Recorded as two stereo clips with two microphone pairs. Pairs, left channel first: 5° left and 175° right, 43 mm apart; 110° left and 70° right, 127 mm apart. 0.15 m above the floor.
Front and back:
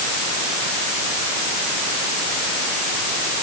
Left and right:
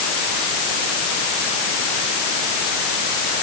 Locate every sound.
Only background noise.